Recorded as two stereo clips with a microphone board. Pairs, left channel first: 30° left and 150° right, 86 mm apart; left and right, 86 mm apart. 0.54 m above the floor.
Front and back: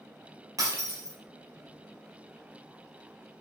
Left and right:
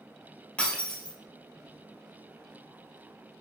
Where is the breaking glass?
165° left, 3 m.